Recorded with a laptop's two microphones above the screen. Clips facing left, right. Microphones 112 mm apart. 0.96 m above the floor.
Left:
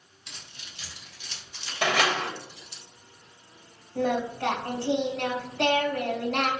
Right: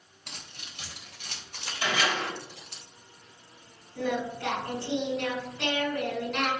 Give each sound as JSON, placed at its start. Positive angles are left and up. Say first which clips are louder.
{"t": 0.3, "sound": "keys jangling", "louder": "right 2 dB", "side_deg": -60, "distance_m": 3.5}
{"t": 1.8, "sound": "a door slam", "louder": "left 4 dB", "side_deg": 85, "distance_m": 3.0}
{"t": 4.0, "sound": "singing", "louder": "left 4 dB", "side_deg": 70, "distance_m": 3.0}